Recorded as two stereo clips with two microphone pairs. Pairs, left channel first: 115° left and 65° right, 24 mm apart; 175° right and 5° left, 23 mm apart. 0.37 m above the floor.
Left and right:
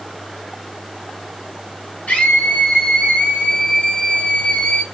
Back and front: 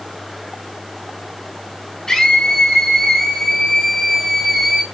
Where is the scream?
130° left, 4 m; by 4.8 s 100° left, 1.7 m.